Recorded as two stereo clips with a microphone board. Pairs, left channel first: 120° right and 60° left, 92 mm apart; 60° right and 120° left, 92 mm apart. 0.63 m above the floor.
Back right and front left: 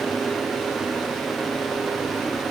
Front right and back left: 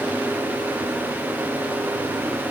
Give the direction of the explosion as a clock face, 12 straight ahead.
I don't hear an explosion.